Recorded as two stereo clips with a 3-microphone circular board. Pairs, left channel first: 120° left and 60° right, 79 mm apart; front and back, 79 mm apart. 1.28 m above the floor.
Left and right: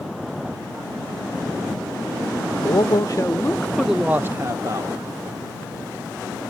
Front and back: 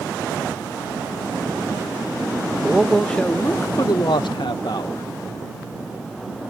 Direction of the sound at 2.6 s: 95° left.